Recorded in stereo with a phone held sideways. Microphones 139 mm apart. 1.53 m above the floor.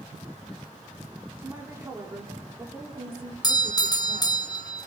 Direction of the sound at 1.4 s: 15° right (ahead or behind).